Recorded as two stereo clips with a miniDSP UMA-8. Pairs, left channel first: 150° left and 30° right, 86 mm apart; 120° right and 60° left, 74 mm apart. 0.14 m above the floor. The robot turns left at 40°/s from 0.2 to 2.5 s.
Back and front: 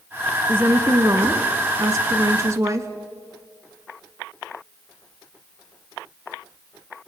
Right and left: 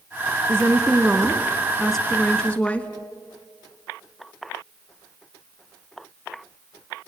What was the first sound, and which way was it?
A woman speaking, 25° left.